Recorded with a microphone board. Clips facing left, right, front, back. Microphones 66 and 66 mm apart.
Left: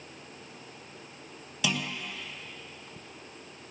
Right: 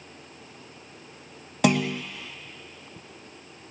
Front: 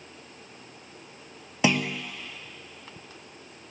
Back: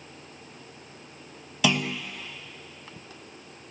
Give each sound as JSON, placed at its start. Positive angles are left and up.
{"t": 1.6, "sound": "a clunk", "azimuth_deg": -55, "distance_m": 1.1}